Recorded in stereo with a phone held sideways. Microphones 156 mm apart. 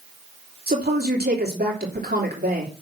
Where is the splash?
No splash in this recording.